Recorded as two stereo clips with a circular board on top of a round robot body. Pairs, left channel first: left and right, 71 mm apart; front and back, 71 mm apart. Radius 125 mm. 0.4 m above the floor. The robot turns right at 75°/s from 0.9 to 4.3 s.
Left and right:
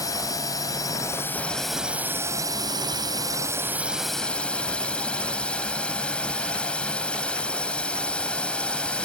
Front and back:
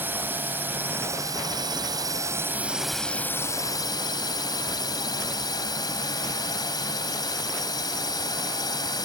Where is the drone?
120° left; by 9.1 s 15° left.